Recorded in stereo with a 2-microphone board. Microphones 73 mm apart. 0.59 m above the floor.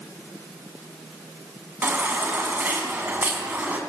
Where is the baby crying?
25° right (ahead or behind), 4 m.